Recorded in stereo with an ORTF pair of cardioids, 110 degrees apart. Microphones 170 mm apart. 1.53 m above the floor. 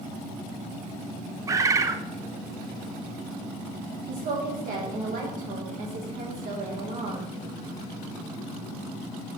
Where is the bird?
20° right, 0.7 m.